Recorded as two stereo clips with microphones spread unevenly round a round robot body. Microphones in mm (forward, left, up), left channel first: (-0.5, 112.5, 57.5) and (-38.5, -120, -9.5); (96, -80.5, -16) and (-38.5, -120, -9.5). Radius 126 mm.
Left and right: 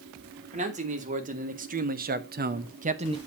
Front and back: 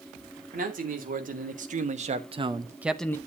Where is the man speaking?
155° right, 3 m; by 3.2 s 50° right, 1.0 m.